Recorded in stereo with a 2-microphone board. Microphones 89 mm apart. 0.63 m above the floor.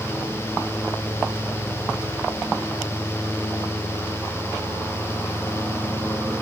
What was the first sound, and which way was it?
Only background noise.